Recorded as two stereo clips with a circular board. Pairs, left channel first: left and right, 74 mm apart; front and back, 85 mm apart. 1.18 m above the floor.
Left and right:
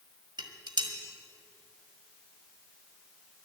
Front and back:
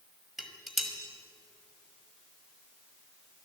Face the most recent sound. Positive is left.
turn(degrees=-90)